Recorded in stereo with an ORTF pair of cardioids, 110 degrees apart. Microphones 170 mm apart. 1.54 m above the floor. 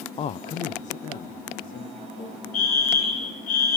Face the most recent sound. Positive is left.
turn(degrees=55)